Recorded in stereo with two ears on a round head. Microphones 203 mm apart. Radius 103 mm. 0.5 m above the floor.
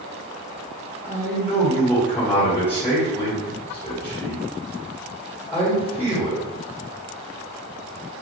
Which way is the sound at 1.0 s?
10° left (ahead or behind).